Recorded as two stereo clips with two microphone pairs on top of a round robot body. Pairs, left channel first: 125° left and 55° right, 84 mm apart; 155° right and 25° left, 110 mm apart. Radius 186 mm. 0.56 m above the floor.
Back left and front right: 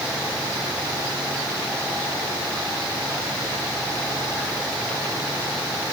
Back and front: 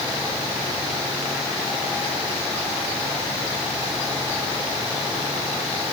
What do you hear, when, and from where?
Only background noise.